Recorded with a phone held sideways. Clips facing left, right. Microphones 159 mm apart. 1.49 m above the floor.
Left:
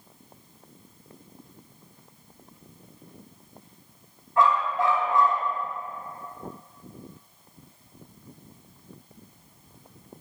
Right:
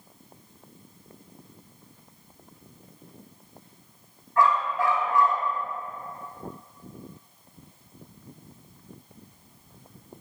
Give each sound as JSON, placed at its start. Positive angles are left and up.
{"t": 4.4, "sound": "a dog barking", "side_deg": 20, "distance_m": 4.0}